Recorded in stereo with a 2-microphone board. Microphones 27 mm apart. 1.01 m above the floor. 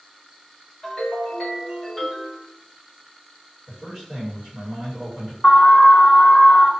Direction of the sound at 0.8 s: 15° left (ahead or behind).